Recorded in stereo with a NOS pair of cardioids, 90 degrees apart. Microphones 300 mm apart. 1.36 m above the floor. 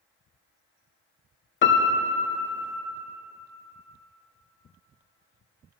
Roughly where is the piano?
Ahead left.